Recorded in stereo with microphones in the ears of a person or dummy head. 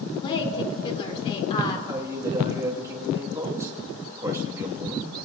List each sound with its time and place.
0.2 s a woman speaking: 35° left (ahead or behind), 3 m
1.9 s a man speaking: 20° right (ahead or behind), 1.7 m